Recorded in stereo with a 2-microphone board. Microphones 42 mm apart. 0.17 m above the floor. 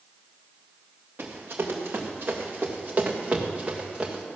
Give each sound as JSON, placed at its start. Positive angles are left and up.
{"t": 1.2, "sound": "running footsteps", "side_deg": -60, "distance_m": 3.0}